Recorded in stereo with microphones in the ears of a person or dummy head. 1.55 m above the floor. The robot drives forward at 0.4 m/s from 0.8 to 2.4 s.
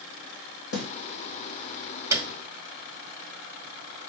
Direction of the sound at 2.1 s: 15° right (ahead or behind).